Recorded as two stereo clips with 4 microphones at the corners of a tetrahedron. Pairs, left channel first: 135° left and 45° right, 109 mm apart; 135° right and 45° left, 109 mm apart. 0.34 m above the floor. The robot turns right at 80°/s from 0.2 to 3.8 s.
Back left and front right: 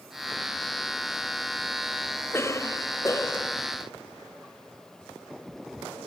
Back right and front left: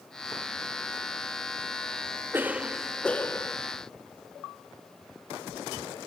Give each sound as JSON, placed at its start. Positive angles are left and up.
{"t": 2.3, "sound": "a cough", "azimuth_deg": 95, "distance_m": 1.3}